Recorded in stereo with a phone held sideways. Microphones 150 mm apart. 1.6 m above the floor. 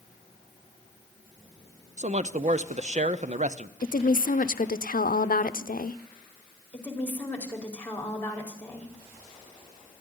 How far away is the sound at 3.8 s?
About 0.6 m.